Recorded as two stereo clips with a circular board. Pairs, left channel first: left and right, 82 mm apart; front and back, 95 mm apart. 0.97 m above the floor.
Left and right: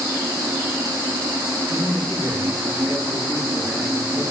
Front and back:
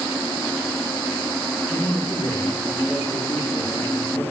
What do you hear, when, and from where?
1.7 s a man speaking: 35° left, 9 m